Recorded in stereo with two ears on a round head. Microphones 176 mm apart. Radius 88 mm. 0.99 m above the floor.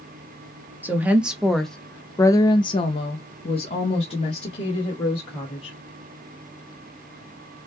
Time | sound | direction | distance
0.8 | a woman speaking | 10° right (ahead or behind) | 1.2 m